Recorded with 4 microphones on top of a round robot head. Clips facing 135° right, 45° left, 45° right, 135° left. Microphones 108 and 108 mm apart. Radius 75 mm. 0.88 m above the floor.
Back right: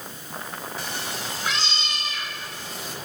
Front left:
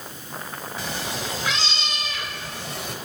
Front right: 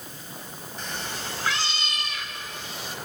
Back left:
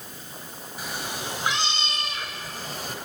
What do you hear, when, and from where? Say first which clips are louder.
0.8 s a cat meowing: front left 5 dB, back left 2 dB; 50° left, 3 m; by 3.0 s 85° left, 2.5 m